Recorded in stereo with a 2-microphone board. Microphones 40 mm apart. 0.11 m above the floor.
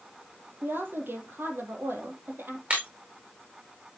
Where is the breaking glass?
30° right (ahead or behind), 5 m.